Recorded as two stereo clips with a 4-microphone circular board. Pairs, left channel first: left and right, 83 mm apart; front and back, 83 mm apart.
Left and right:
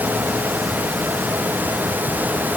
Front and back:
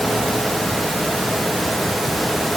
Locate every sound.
Only background noise.